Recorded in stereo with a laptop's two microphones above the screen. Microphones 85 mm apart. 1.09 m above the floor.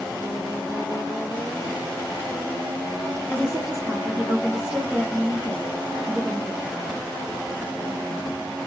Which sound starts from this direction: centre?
A woman speaking, at 3.3 s.